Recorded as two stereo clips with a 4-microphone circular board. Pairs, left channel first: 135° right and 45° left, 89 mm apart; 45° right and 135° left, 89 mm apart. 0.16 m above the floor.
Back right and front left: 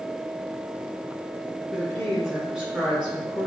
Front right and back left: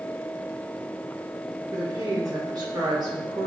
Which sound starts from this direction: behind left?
A woman speaking, at 1.7 s.